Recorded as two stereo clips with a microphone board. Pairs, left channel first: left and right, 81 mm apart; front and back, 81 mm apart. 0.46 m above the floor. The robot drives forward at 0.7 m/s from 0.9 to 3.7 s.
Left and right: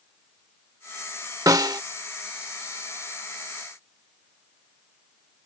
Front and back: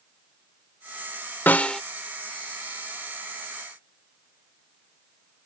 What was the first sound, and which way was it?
A snare drum, 60° right.